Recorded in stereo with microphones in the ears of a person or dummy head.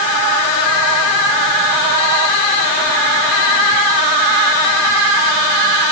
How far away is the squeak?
No squeak in this recording.